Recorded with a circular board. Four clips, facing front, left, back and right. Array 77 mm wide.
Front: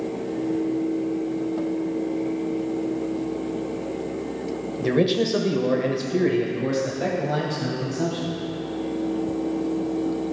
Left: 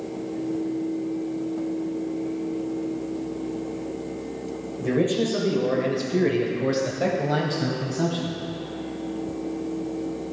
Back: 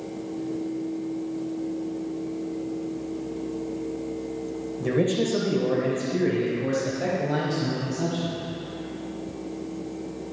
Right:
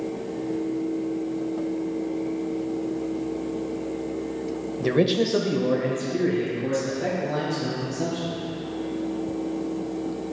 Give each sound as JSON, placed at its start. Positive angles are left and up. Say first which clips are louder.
{"t": 4.8, "sound": "a man speaking", "louder": "right 1 dB, front 3 dB", "azimuth_deg": -55, "distance_m": 1.0}